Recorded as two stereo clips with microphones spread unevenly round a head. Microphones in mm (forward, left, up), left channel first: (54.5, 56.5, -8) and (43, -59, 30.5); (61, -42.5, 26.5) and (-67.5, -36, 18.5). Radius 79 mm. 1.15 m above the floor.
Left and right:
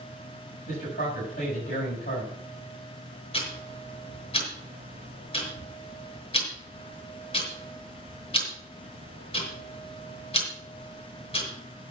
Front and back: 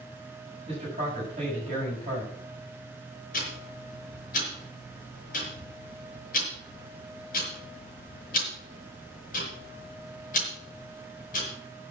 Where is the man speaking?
120° left, 7 m.